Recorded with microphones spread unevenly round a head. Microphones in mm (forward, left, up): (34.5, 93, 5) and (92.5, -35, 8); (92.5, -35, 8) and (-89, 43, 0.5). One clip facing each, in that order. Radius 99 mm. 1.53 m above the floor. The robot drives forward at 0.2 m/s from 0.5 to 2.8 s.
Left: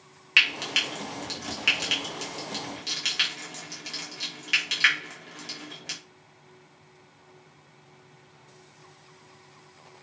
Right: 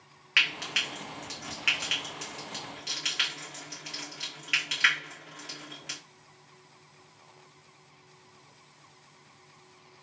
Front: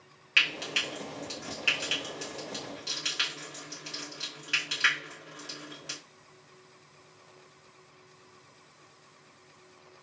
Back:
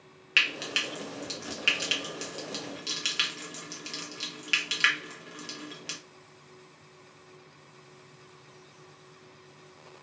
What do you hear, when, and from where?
0.4 s frying: 85° left, 0.9 m; by 6.0 s 140° left, 1.0 m